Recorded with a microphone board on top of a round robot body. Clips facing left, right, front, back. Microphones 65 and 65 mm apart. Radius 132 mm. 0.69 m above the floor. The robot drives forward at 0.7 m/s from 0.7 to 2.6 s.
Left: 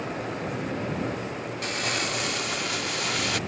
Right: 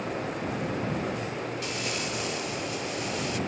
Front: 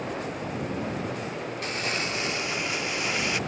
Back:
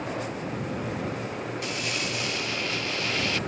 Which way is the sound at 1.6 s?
55° left.